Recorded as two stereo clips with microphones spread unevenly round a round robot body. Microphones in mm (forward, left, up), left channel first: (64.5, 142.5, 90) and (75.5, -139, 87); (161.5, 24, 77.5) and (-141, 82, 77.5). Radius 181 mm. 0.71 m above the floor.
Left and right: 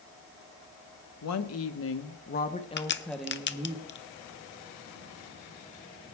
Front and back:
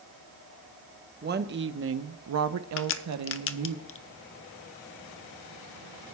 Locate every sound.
1.2 s a woman speaking: 110° left, 1.2 m; by 3.8 s 160° right, 1.0 m
2.8 s a crack: 40° left, 0.8 m